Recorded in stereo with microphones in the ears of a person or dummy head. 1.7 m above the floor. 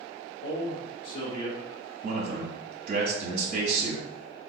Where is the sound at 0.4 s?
65° left (ahead or behind), 0.8 m.